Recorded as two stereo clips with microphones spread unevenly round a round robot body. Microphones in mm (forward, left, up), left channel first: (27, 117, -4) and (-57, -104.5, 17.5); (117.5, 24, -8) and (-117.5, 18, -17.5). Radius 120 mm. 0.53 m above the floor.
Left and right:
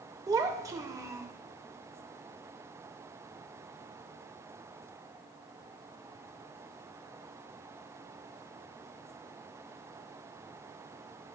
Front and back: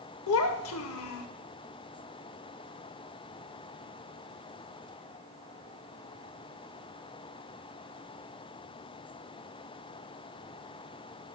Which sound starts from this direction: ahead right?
A child speaking, at 0.3 s.